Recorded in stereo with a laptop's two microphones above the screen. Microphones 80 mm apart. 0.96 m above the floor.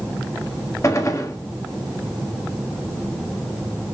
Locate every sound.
0.8 s a gunshot: 40° left (ahead or behind), 0.8 m